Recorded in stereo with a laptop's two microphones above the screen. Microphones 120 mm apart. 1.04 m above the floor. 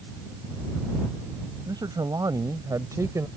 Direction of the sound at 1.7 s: 35° right (ahead or behind).